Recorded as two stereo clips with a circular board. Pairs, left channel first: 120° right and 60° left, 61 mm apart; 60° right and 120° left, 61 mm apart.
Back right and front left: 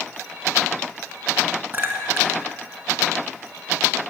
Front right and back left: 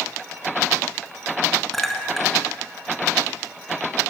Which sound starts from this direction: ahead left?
A clink, at 1.7 s.